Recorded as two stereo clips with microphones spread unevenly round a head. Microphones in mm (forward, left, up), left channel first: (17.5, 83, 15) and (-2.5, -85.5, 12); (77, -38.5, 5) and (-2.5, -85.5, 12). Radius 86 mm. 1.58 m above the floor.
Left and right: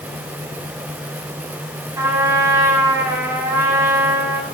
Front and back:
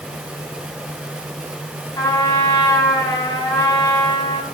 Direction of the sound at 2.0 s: 25° right.